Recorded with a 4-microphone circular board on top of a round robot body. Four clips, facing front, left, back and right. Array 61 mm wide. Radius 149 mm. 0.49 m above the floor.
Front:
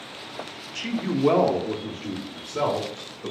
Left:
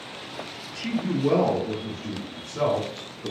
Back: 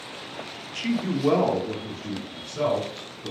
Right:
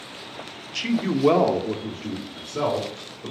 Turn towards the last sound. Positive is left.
turn(degrees=-25)